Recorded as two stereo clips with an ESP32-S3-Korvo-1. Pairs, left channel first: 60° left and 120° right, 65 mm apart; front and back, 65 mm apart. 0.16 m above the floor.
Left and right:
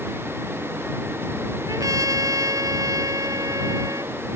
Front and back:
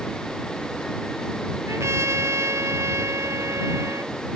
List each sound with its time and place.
1.7 s a trumpet: 140° right